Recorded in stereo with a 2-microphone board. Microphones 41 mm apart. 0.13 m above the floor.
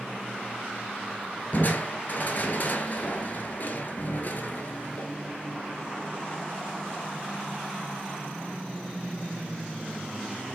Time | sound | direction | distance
1.5 | crushing | 50° left (ahead or behind) | 0.5 m